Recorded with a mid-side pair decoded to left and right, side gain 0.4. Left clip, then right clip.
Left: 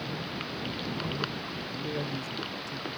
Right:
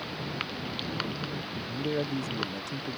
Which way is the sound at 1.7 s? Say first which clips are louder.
Right 5 dB; 50° right.